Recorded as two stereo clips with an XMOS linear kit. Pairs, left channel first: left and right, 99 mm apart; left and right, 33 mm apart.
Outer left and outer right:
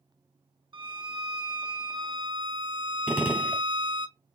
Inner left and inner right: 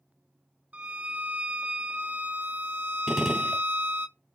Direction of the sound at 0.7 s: 55° right (ahead or behind).